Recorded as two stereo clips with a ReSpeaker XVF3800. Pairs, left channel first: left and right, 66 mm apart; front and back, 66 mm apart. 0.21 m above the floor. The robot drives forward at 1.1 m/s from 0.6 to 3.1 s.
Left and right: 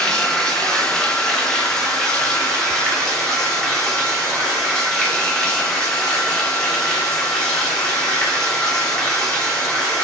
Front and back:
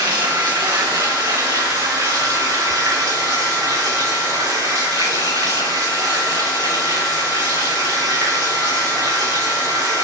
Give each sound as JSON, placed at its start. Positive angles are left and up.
{"t": 0.0, "sound": "running water", "azimuth_deg": 170, "distance_m": 4.0}